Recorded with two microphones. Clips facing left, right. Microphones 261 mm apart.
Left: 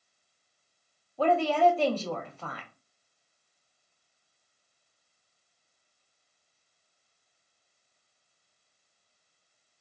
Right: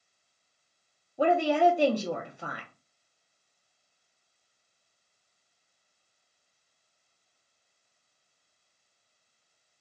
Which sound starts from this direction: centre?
A woman speaking, at 1.2 s.